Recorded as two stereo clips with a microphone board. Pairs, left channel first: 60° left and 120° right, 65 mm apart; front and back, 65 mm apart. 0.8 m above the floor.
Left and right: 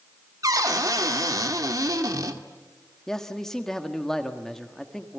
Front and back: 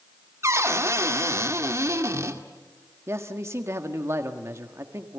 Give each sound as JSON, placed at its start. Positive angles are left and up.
{"t": 0.4, "sound": "a cupboard door", "azimuth_deg": -140, "distance_m": 2.0}
{"t": 3.1, "sound": "a man speaking", "azimuth_deg": 140, "distance_m": 1.5}